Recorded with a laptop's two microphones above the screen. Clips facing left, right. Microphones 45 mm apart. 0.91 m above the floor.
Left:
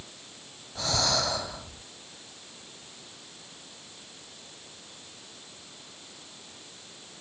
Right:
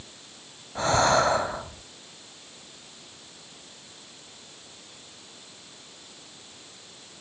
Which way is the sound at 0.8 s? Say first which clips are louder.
Right 8 dB; 35° right (ahead or behind).